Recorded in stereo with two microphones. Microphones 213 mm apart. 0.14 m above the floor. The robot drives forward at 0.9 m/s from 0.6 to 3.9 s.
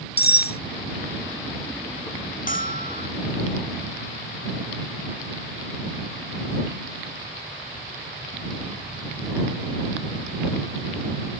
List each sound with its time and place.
0.2 s cutlery clinking: 50° left (ahead or behind)
2.5 s a bell: 40° left (ahead or behind); by 3.1 s 45° left (ahead or behind)